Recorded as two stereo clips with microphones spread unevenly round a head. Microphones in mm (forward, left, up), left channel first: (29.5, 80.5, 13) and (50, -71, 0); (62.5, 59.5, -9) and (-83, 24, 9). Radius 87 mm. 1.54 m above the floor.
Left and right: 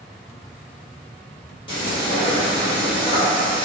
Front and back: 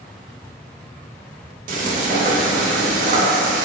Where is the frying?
160° left, 0.6 m.